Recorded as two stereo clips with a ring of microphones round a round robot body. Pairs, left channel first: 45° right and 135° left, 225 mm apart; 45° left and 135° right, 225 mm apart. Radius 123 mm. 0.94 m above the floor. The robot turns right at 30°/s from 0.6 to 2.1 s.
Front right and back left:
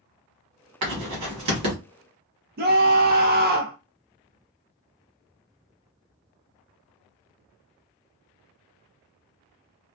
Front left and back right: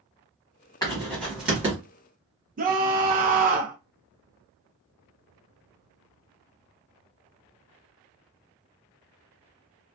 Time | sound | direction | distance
0.8 | writing | 120° left | 1.3 m
2.6 | a scream | 175° left | 0.6 m